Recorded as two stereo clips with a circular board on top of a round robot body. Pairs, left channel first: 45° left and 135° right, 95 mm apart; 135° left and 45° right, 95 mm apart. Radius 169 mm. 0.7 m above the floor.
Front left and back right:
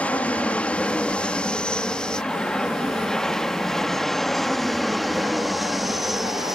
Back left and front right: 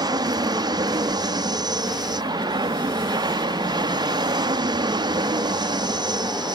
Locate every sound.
0.0 s an aircraft: 25° right; by 6.6 s 50° right